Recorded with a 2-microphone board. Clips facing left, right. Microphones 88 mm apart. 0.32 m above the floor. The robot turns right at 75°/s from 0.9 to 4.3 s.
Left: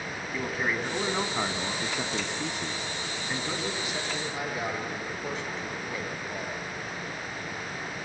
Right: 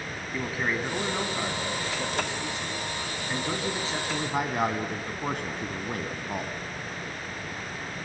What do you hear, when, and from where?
0.3 s a man speaking: 5° right, 2.5 m; by 6.5 s 110° right, 2.5 m